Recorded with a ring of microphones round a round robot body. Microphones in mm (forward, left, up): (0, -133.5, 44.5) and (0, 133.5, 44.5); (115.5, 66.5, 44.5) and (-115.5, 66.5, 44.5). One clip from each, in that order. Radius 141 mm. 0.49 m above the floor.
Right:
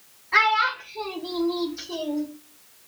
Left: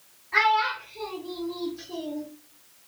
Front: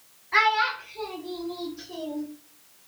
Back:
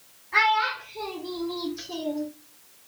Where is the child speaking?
35° right, 0.7 m; by 2.3 s 145° right, 1.0 m.